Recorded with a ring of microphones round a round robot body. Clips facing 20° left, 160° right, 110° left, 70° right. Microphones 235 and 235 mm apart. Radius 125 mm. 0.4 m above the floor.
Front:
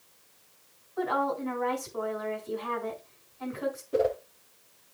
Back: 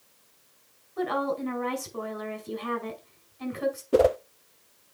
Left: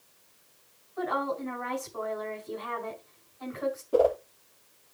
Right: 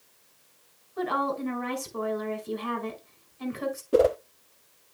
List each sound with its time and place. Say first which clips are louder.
1.0 s a woman speaking: back 2 dB, right 2 dB; 110° right, 4.5 m
3.9 s a whoosh: back 6 dB, right 2 dB; 130° right, 0.5 m